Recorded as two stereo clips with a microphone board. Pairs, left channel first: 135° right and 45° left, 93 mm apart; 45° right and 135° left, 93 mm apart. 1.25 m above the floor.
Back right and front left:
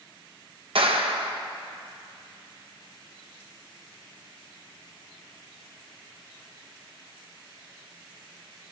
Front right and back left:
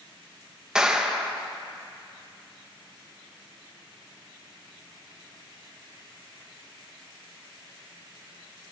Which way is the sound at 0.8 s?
55° left.